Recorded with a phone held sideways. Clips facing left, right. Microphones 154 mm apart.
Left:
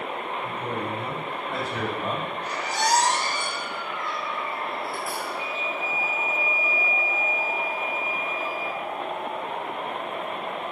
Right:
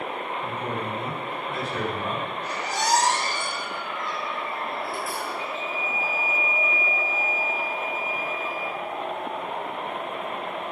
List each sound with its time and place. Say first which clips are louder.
0.4 s a man speaking: even; 10° left (ahead or behind), 5.5 m; by 2.3 s 5° left (ahead or behind), 4.5 m
2.4 s a squeak: left 1 dB; 50° left (ahead or behind), 5.5 m
5.4 s a flute: even; 30° left (ahead or behind), 5 m